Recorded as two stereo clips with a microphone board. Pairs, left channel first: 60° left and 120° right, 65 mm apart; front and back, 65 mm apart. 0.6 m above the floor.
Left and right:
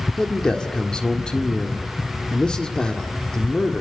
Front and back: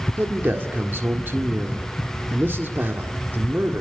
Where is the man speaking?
135° left, 1.6 m.